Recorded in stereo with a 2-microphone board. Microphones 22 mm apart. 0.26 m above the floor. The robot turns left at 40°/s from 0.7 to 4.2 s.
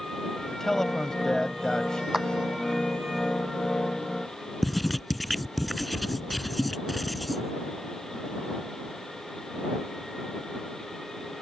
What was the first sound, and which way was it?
A man speaking, 20° left (ahead or behind).